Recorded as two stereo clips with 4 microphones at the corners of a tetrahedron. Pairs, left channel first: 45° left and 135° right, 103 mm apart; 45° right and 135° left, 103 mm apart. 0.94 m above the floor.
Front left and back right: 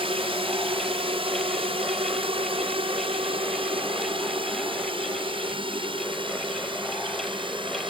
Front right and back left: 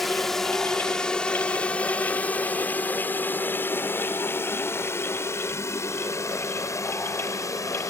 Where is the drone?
135° right; by 7.9 s 100° right.